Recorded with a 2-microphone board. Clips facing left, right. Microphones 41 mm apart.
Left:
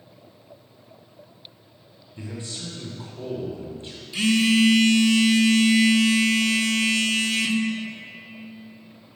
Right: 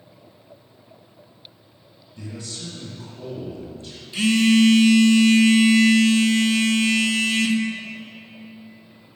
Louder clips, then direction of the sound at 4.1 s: Right 3 dB; centre (ahead or behind).